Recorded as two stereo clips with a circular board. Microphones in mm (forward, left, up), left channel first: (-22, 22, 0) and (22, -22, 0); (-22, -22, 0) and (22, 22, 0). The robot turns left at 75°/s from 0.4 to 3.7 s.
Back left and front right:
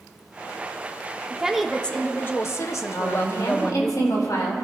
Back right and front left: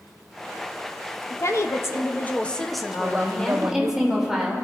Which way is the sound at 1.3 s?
115° right.